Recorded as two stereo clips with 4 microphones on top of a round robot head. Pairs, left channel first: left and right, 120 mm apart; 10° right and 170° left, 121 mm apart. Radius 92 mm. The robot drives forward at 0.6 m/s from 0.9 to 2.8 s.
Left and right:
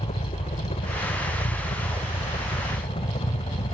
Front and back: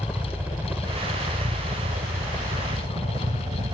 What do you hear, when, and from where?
0.0 s a helicopter: 95° left; by 3.7 s 120° left